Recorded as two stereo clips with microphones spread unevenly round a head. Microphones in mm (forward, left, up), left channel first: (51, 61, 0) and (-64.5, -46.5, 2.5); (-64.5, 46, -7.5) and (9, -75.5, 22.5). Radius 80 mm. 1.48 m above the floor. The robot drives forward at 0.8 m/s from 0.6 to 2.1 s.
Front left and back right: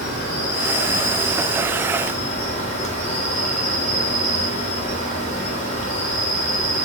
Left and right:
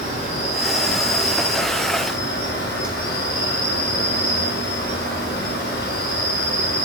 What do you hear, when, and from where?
0.0 s an insect: 65° left, 3.5 m; by 6.8 s 90° left, 3 m